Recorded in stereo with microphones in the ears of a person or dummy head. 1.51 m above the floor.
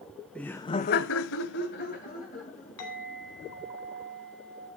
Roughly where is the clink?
Left.